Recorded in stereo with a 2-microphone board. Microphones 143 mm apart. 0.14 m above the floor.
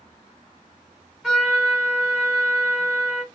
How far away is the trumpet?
About 1.9 m.